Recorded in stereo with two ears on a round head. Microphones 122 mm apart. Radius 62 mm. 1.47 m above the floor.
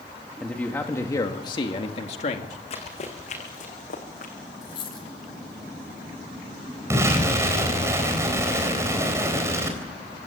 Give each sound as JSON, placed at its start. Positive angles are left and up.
{"t": 0.4, "sound": "a man speaking", "side_deg": 5, "distance_m": 2.0}
{"t": 2.7, "sound": "running footsteps", "side_deg": 50, "distance_m": 6.0}
{"t": 4.6, "sound": "a dropped coin", "side_deg": 35, "distance_m": 5.5}
{"t": 6.9, "sound": "an explosion", "side_deg": -20, "distance_m": 4.0}